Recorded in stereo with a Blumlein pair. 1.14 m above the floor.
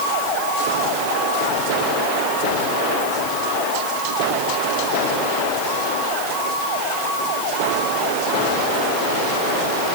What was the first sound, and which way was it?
Only background noise.